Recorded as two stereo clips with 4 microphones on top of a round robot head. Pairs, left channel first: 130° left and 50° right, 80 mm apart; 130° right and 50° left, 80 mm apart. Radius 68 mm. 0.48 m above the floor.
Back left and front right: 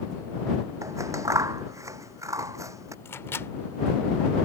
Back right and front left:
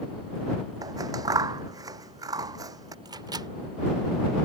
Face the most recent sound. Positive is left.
turn(degrees=75)